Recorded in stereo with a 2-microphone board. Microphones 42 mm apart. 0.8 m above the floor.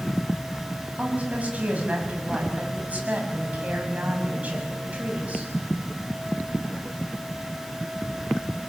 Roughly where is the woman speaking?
Right.